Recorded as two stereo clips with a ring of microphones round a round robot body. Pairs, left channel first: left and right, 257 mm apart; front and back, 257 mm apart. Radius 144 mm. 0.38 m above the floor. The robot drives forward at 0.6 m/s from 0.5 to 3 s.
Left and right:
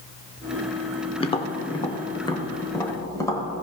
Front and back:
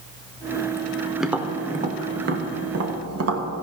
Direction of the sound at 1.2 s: 90° left.